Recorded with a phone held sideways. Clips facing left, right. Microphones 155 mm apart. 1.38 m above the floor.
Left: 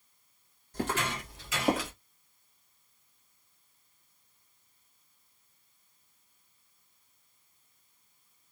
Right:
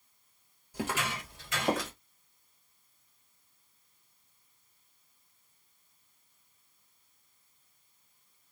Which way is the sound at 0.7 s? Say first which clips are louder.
Left 2 dB; 10° right (ahead or behind).